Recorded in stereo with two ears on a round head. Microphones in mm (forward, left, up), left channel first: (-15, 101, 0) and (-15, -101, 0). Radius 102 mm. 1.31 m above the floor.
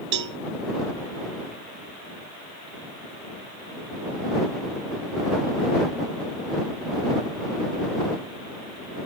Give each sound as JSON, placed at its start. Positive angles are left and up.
{"t": 0.1, "sound": "a cowbell", "side_deg": -55}